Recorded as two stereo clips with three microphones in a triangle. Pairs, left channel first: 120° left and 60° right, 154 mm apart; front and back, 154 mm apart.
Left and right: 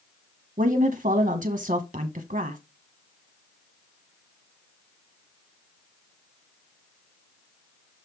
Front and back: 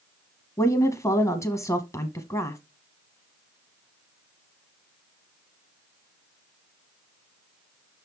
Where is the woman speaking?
65° right, 1.0 m.